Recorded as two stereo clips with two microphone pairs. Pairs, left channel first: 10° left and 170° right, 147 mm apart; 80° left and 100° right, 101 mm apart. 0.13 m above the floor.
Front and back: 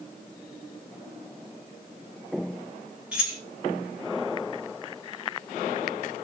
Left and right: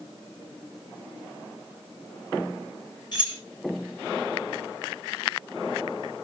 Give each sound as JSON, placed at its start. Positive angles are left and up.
{"t": 3.1, "sound": "keys jangling", "azimuth_deg": 105, "distance_m": 1.7}